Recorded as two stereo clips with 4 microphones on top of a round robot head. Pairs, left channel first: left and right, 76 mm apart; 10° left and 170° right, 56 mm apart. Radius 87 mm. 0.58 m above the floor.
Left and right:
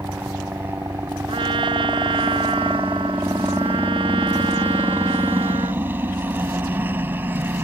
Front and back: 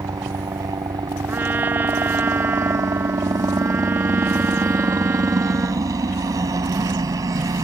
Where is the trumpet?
110° right.